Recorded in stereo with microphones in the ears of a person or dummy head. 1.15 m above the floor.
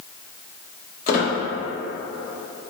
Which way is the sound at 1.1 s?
40° left (ahead or behind).